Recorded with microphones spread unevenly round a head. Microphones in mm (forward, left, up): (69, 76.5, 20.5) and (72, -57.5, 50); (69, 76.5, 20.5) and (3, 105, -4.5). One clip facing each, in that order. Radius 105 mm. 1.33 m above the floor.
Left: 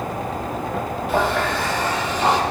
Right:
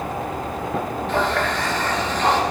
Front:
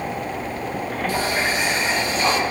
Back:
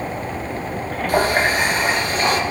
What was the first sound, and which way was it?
A running tap, 170° right.